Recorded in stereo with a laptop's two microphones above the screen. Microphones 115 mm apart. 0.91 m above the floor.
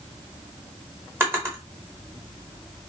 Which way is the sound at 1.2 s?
20° right (ahead or behind).